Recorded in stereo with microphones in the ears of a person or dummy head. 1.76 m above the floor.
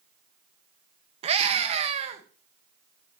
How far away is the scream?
About 1.6 m.